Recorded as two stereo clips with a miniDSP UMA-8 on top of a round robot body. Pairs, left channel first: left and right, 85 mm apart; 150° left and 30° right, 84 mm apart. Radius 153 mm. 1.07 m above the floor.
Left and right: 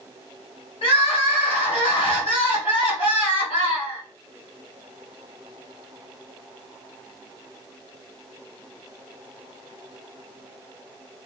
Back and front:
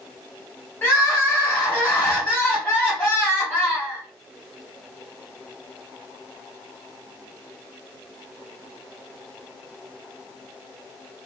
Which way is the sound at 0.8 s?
80° left.